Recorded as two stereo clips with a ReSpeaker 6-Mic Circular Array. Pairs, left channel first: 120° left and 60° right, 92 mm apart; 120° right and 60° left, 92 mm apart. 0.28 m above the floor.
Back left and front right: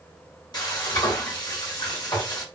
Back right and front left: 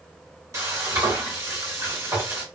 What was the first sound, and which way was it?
Frying, 105° left.